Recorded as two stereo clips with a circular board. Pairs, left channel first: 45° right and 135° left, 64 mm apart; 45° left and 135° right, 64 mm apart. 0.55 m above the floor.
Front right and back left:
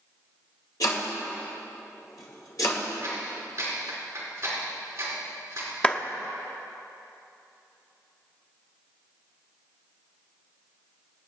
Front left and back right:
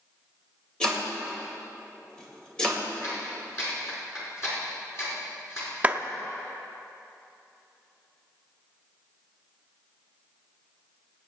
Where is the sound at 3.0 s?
90° left, 5 m.